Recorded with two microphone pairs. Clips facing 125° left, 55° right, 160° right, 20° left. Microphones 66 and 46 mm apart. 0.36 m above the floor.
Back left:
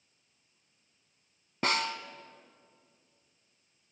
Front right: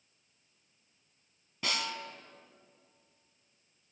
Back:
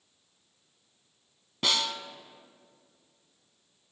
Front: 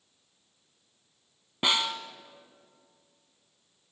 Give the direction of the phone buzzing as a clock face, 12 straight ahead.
I don't hear a phone buzzing.